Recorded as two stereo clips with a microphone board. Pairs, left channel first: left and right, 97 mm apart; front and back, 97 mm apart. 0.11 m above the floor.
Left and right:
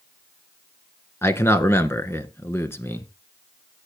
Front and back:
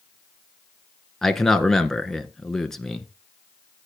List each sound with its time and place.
1.2 s a man speaking: 80° left, 1.1 m